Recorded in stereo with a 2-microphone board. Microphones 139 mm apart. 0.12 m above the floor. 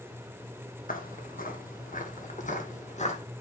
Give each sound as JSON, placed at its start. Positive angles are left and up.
{"t": 0.9, "sound": "footsteps", "side_deg": 80, "distance_m": 2.5}